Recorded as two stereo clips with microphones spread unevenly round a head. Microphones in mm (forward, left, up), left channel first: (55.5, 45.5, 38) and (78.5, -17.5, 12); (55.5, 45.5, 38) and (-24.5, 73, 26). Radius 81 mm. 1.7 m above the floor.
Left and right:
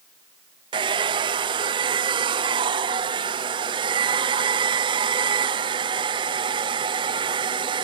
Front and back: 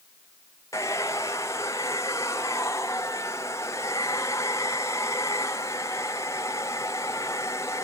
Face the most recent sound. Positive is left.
turn(degrees=-90)